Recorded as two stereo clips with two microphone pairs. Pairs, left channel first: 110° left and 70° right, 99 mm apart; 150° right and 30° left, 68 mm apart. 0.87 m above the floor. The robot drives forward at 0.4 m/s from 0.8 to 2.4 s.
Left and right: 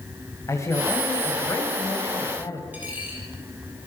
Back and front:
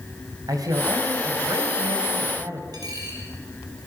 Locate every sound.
0.5 s a man speaking: 50° left, 4.5 m; by 2.6 s 60° left, 4 m
2.7 s a dropped coin: 5° left, 5.5 m